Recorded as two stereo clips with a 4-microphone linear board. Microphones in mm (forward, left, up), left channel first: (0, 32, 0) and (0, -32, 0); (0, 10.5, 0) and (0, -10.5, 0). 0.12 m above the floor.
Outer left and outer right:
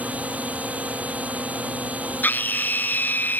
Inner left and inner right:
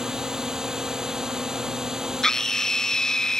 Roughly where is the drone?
Right.